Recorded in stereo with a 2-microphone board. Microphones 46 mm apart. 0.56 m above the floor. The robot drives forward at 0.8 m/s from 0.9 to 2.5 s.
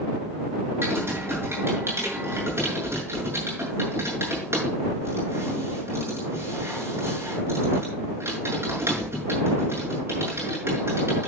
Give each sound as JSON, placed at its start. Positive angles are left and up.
{"t": 0.8, "sound": "typing on a keyboard", "side_deg": -60, "distance_m": 7.5}